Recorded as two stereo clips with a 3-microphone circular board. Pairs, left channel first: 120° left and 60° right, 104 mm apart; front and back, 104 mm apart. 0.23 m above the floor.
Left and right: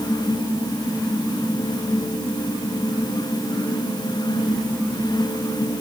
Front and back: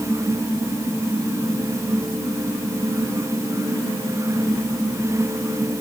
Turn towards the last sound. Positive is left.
No sound to turn to.